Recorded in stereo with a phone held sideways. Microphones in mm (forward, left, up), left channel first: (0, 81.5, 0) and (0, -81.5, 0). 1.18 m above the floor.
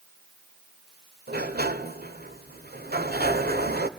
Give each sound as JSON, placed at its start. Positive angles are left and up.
{"t": 1.3, "sound": "a sliding door", "side_deg": -70, "distance_m": 1.8}